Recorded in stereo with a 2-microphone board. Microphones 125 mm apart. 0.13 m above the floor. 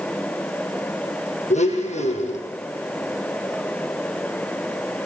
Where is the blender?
70° left (ahead or behind), 4.5 m.